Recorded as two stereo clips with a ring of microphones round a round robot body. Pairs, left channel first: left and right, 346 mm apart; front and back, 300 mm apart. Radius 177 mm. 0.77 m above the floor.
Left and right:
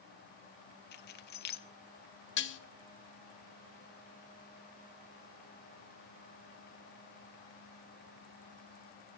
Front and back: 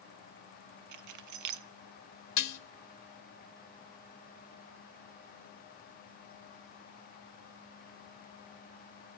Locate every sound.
0.9 s keys jangling: 150° left, 0.5 m
2.4 s dishes clattering: 30° left, 0.8 m